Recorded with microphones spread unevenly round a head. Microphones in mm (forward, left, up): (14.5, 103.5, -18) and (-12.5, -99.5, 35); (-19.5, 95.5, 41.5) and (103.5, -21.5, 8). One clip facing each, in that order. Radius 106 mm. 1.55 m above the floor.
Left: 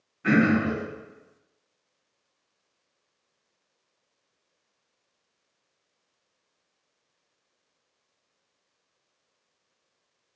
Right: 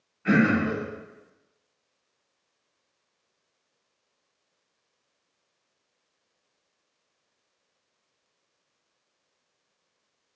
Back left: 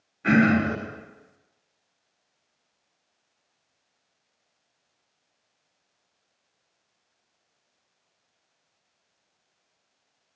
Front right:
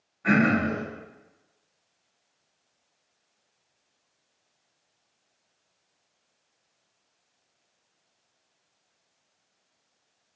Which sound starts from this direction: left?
Throat clearing, at 0.2 s.